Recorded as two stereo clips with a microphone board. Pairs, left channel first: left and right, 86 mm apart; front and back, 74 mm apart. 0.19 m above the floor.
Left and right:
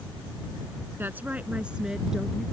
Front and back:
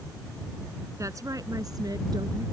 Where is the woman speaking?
150° right; by 2.4 s 175° right.